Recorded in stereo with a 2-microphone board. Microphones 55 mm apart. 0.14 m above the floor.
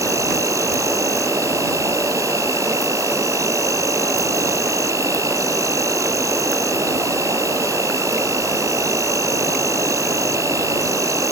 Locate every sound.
0.0 s an insect: 75° right (ahead or behind)